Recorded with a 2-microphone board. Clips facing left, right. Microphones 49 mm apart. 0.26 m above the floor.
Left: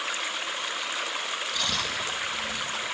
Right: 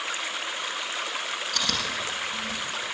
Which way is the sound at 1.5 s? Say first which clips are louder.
Right 1 dB; 70° right (ahead or behind).